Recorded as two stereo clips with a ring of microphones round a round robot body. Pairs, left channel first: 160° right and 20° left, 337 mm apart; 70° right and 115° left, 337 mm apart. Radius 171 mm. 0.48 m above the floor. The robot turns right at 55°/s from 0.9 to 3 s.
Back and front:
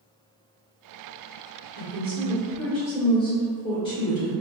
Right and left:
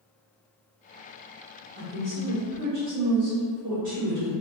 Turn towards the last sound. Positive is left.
turn(degrees=140)